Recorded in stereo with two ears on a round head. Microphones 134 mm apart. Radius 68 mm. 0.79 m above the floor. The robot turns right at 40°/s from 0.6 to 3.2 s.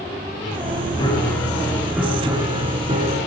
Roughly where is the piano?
Behind left.